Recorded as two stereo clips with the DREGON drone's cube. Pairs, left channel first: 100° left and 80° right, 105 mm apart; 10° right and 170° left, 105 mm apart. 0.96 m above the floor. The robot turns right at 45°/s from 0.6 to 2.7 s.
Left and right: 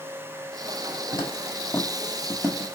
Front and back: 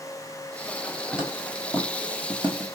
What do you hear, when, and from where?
1.1 s footsteps: 90° left, 1.2 m; by 2.8 s 110° right, 1.1 m